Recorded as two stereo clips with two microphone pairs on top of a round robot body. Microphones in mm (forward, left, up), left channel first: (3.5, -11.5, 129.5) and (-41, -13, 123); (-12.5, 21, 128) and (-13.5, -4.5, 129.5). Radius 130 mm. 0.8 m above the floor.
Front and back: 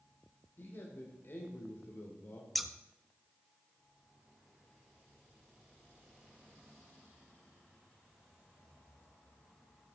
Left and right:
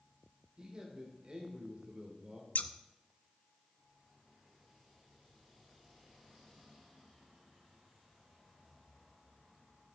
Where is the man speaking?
40° right, 2.5 m.